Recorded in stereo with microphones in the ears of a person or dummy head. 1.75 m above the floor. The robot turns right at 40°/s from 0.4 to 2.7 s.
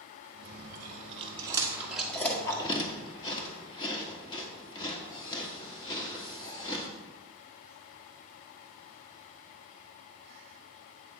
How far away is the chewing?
About 1.3 m.